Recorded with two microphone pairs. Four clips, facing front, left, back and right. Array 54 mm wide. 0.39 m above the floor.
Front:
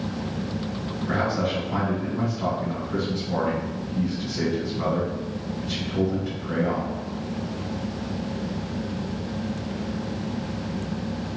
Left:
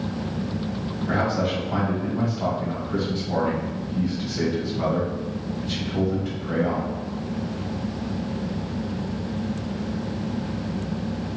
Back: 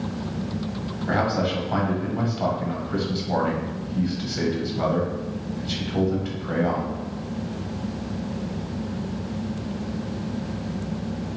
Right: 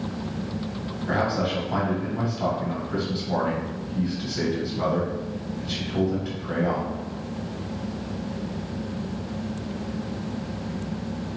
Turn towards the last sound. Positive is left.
turn(degrees=180)